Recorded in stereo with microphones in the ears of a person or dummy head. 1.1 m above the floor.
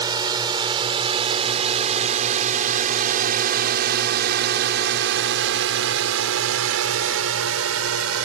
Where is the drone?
25° right (ahead or behind); by 8.2 s 70° right (ahead or behind).